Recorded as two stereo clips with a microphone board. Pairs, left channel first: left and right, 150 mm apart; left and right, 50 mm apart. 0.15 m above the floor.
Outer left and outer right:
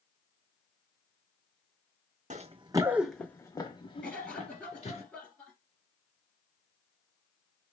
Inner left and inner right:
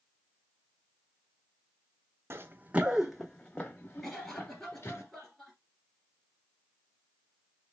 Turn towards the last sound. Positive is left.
turn(degrees=10)  # may be behind; listen again after turning